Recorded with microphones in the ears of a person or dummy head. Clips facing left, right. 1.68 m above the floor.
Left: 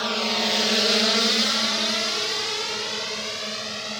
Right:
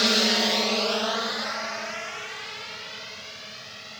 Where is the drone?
30° right (ahead or behind); by 4.0 s 70° left (ahead or behind).